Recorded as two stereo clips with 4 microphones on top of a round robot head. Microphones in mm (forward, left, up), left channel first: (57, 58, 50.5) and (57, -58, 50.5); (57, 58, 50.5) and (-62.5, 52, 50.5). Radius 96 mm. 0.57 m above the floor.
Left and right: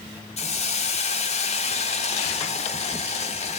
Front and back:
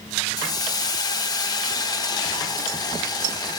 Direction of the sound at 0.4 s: 60° left.